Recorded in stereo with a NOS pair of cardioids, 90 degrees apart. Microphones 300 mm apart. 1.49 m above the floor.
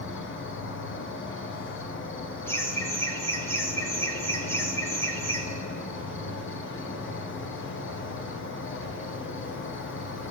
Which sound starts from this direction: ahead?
Laughter, at 2.5 s.